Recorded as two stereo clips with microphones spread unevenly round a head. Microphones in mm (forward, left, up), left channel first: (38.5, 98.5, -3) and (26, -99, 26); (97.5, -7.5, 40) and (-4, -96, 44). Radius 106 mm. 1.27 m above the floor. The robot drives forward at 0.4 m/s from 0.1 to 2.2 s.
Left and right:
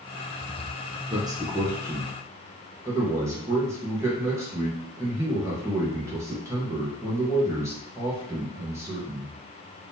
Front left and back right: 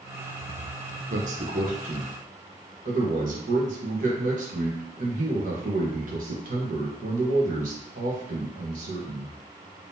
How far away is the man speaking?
About 0.6 m.